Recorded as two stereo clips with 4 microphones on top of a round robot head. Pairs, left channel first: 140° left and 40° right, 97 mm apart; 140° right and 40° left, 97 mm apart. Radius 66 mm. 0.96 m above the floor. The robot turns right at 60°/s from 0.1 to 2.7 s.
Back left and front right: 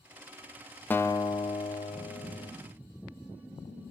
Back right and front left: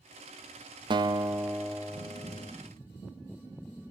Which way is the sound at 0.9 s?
70° left.